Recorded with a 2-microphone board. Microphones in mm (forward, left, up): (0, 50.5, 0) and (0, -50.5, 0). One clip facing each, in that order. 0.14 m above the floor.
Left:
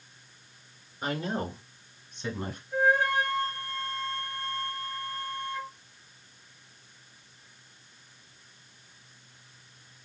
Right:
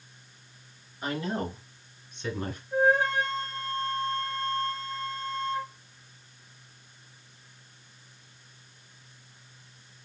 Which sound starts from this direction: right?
A flute, at 2.7 s.